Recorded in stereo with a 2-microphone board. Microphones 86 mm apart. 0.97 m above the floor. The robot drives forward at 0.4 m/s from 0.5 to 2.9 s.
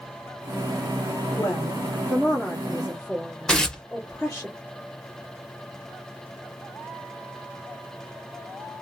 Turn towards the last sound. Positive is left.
turn(degrees=10)  # may be behind; listen again after turning